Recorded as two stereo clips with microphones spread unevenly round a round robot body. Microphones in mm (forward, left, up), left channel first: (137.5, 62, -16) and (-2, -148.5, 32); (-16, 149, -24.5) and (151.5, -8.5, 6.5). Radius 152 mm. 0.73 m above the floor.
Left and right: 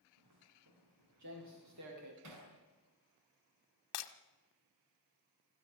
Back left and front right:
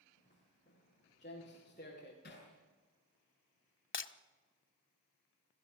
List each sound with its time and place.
0.2 s footsteps: 155° right, 8 m
2.2 s hammering: 160° right, 6 m
3.9 s breaking glass: 100° left, 1.1 m